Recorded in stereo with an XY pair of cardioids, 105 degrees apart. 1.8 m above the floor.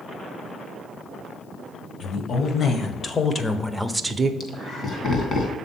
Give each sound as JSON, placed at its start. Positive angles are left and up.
{"t": 2.0, "sound": "a woman speaking", "azimuth_deg": 55, "distance_m": 2.0}
{"t": 4.4, "sound": "laughter", "azimuth_deg": 50, "distance_m": 2.0}